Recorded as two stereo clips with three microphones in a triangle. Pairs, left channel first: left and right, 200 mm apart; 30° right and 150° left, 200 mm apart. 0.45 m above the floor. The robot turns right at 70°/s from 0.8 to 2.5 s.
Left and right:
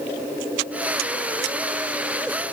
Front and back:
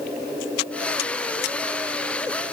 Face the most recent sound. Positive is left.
No sound to turn to.